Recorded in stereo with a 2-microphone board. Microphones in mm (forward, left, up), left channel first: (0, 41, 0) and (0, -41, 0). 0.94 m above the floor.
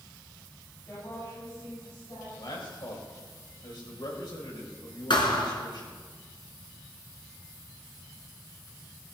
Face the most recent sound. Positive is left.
turn(degrees=70)  # may be behind; listen again after turning